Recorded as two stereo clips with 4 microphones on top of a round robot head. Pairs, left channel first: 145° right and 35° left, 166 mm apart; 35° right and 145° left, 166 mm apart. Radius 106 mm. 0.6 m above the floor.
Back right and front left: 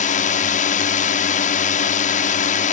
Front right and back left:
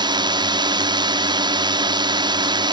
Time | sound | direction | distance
0.0 | a drone | 160° right | ?